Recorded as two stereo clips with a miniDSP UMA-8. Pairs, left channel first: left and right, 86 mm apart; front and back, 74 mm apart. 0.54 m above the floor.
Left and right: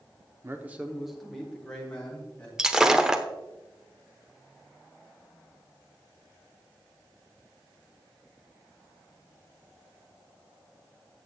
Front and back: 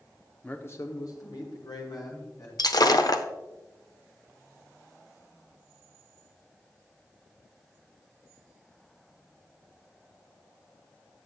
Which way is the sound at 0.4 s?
60° right.